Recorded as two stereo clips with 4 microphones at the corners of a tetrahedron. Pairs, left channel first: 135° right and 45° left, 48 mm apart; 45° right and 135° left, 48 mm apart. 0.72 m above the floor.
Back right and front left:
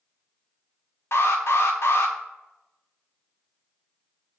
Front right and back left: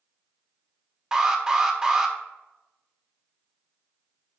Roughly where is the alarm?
Behind right.